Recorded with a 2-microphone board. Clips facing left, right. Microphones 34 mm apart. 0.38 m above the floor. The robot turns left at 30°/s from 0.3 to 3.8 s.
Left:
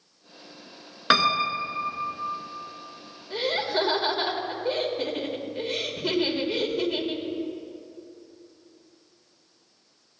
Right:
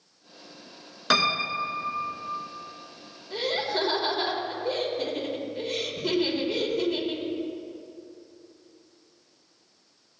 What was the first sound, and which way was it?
A piano, 30° left.